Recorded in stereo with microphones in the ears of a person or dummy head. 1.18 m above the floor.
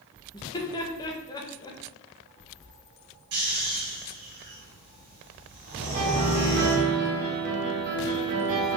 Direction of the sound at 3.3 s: 45° right (ahead or behind).